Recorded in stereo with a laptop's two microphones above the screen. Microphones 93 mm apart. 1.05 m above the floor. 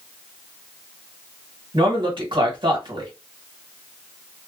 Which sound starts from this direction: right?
A man speaking, at 1.7 s.